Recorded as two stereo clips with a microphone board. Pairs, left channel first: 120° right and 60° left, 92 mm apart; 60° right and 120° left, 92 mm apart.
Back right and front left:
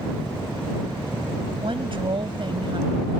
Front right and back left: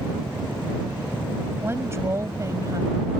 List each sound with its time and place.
1.6 s a woman speaking: 55° left; by 3.1 s 80° left